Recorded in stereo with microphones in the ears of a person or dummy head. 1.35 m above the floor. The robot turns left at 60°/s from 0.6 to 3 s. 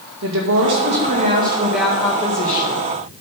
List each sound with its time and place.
0.2 s a woman speaking: 110° right, 2.0 m; by 2.9 s 115° left, 2.0 m